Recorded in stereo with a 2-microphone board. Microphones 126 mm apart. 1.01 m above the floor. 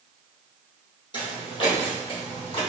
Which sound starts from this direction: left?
Footsteps, at 1.1 s.